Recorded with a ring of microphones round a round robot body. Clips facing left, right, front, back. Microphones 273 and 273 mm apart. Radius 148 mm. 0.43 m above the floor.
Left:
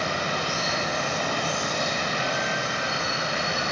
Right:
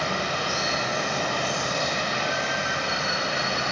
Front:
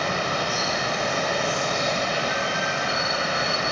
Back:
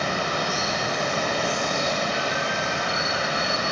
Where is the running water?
105° right, 1.4 m.